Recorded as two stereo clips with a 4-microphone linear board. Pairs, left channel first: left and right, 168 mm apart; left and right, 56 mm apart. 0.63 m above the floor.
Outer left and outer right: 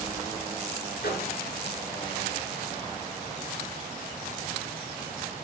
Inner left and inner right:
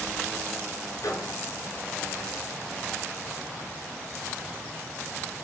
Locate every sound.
1.0 s a microwave: 70° left (ahead or behind), 5.5 m